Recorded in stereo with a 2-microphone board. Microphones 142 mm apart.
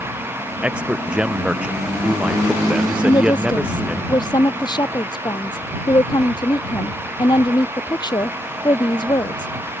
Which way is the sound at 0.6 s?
5° right (ahead or behind).